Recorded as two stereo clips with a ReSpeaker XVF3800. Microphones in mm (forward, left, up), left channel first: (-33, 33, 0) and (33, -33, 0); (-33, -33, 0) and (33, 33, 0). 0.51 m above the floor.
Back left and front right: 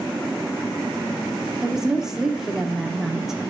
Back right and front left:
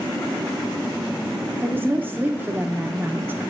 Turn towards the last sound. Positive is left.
turn(degrees=35)